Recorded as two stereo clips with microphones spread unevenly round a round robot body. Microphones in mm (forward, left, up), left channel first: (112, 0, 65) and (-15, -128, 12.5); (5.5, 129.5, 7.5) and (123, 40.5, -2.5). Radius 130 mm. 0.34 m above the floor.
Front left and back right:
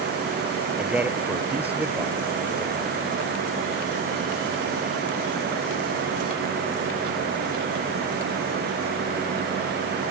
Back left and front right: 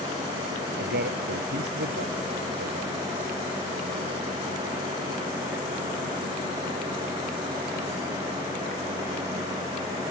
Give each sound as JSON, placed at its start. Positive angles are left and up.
{"t": 0.8, "sound": "a man speaking", "azimuth_deg": -55}